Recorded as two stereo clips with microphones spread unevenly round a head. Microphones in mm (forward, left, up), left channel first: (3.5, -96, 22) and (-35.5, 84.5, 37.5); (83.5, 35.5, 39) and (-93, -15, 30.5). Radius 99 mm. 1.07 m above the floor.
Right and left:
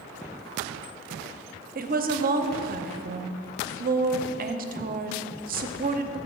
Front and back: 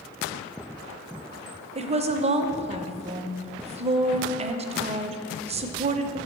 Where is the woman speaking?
145° left, 0.6 m.